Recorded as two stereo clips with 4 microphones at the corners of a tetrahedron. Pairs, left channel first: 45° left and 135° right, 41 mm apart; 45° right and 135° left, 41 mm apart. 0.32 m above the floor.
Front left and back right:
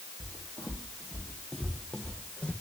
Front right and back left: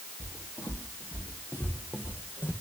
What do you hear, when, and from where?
0.2 s footsteps: 50° right, 3 m; by 2.5 s 15° right, 1.2 m